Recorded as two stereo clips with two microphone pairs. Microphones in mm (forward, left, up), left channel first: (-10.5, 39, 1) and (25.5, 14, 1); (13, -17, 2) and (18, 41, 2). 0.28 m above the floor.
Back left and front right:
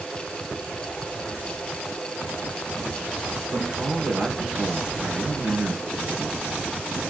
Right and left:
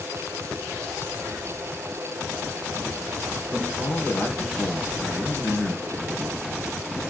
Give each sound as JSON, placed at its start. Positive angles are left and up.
{"t": 3.5, "sound": "a man speaking", "azimuth_deg": -50, "distance_m": 4.5}